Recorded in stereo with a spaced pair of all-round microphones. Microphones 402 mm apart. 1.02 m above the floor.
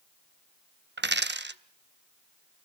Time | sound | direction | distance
1.0 | a dropped coin | 25° right (ahead or behind) | 0.6 m